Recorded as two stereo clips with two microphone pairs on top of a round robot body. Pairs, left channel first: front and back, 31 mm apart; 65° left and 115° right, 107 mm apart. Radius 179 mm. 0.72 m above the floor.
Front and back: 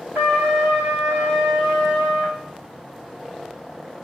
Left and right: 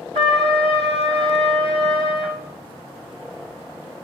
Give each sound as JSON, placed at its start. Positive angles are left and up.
{"t": 0.1, "sound": "a trumpet", "azimuth_deg": -145, "distance_m": 0.6}